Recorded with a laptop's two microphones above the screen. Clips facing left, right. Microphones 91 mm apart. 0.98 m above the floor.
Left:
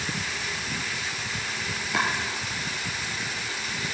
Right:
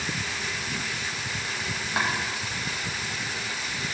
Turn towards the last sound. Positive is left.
turn(degrees=80)